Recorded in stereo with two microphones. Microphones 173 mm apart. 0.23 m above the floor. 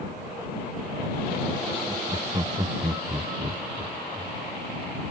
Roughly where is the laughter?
Right.